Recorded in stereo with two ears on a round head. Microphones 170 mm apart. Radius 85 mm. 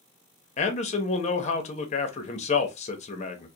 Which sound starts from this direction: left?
A man speaking, at 0.6 s.